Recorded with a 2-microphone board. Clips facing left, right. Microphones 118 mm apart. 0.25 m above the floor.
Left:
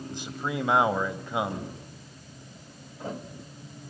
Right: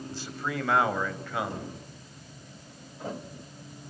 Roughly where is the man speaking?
Centre.